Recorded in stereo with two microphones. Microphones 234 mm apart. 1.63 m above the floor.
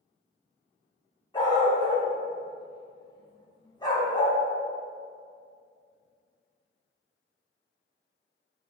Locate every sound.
1.3 s a dog barking: 20° left (ahead or behind), 2.5 m